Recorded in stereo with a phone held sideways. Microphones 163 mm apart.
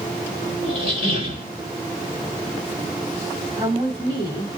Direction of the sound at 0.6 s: 35° right (ahead or behind).